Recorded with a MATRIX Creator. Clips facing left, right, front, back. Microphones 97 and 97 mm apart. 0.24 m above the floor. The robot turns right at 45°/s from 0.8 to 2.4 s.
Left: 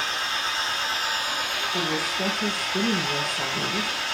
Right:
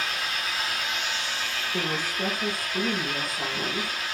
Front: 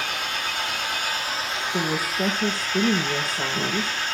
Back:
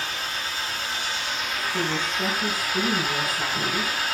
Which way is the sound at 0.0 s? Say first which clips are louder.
Left 2 dB, front 2 dB; 25° left.